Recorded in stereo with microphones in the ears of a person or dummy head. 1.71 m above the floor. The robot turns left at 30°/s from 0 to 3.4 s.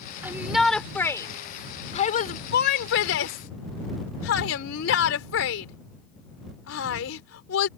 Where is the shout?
15° right (ahead or behind); by 7.7 s 80° left.